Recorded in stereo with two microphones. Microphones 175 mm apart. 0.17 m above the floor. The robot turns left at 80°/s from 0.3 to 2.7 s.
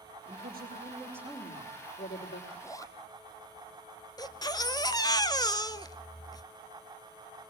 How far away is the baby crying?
About 0.9 m.